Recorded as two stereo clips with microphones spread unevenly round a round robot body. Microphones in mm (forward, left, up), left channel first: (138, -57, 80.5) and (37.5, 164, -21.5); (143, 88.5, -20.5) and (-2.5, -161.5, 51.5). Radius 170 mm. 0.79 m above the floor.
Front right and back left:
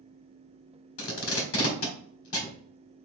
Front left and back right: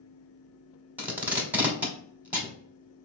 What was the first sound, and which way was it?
Tape being pulled, 35° right.